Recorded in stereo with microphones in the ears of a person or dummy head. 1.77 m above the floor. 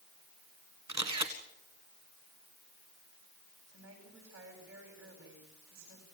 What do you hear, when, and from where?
0.9 s a camera shutter: 35° right (ahead or behind), 1.9 m
3.7 s a woman speaking: 70° right (ahead or behind), 9.5 m